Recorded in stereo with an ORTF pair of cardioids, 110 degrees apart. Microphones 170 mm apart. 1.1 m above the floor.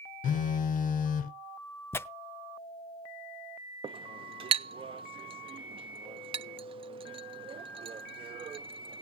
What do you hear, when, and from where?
0.2 s a phone buzzing: 55° left, 0.7 m
1.9 s tearing paper: 15° left, 0.6 m
3.8 s a clink: 30° right, 0.5 m